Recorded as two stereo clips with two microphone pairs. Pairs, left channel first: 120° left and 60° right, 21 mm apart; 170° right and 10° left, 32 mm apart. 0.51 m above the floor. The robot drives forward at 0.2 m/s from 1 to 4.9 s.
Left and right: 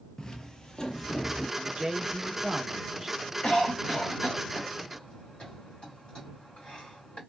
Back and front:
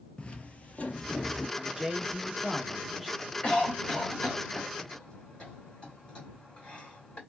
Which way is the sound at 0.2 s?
155° left.